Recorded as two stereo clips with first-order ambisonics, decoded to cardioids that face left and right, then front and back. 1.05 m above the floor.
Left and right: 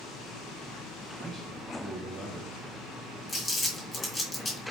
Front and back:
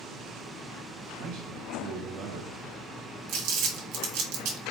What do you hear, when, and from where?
1.2 s a man speaking: 160° right, 0.6 m
3.3 s crumpling: 160° left, 1.3 m